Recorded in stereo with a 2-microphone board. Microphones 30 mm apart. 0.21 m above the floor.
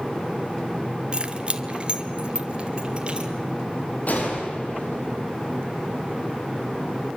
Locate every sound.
1.1 s keys jangling: 35° right (ahead or behind), 1.9 m
4.1 s a gunshot: 60° left (ahead or behind), 7.5 m